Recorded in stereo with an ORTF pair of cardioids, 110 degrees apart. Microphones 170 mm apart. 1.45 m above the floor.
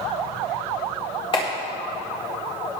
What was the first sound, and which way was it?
A clap, 30° left.